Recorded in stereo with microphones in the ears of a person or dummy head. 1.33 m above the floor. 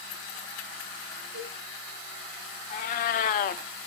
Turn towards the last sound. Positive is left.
turn(degrees=40)  # may be behind; listen again after turning